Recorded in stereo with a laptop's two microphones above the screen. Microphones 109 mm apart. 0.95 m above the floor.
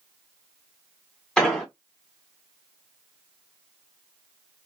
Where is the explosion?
5° left (ahead or behind), 1.0 m.